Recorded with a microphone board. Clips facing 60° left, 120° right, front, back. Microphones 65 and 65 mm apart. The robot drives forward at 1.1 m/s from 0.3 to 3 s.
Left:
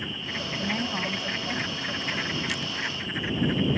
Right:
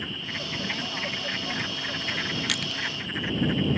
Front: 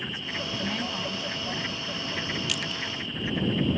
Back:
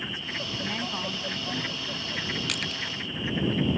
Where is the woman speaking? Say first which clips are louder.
Left 5 dB, front 1 dB; 90° left; by 2.0 s 155° left.